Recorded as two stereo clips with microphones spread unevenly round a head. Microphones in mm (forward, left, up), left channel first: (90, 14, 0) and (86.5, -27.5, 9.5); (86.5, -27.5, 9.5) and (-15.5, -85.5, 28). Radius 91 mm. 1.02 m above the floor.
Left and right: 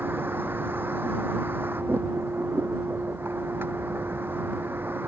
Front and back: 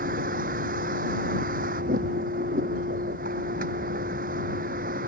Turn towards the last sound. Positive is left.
turn(degrees=-170)